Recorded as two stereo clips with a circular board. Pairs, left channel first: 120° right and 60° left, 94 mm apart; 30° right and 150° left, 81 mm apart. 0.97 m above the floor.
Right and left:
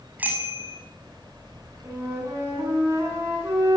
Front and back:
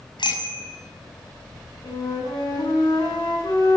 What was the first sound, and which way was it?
A bicycle bell, 10° right.